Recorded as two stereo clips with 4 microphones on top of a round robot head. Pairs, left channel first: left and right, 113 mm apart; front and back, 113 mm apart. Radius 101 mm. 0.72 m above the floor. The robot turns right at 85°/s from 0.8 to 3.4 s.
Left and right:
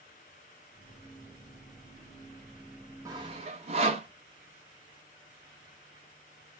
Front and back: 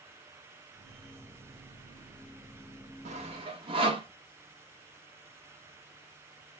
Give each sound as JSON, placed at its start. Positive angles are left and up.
{"t": 3.0, "sound": "sawing", "azimuth_deg": -155, "distance_m": 0.8}